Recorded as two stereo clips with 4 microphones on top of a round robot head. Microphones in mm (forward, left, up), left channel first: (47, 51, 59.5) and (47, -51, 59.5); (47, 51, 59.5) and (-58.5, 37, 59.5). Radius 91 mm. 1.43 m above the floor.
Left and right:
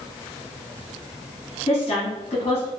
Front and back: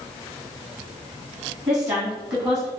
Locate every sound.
1.7 s a woman speaking: 130° left, 2.5 m